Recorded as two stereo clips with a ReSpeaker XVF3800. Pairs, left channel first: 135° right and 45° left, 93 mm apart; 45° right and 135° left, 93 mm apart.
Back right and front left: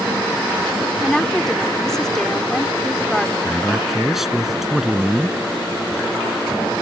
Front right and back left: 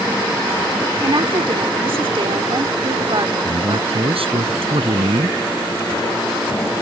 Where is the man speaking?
130° left.